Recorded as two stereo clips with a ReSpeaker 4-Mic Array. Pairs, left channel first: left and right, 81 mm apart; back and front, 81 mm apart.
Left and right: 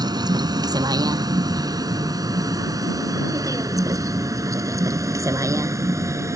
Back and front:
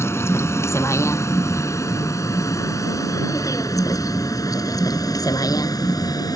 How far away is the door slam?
No door slam in this recording.